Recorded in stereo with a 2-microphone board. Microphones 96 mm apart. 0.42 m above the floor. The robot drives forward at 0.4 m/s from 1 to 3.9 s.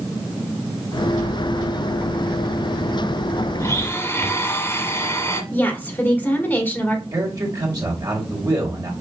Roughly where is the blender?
Left.